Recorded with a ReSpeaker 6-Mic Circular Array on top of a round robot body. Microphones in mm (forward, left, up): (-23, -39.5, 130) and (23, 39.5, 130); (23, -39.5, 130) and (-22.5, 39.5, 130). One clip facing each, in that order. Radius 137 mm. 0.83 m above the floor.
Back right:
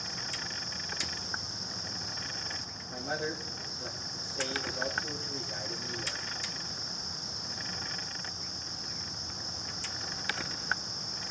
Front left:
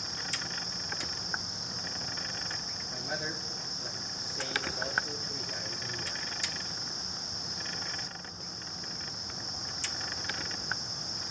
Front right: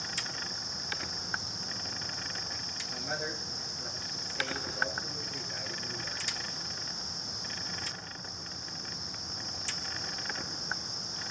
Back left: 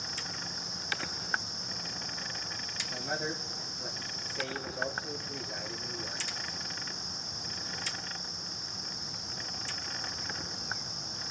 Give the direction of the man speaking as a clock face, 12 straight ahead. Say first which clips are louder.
Back right 3 dB, back left 2 dB; 5 o'clock.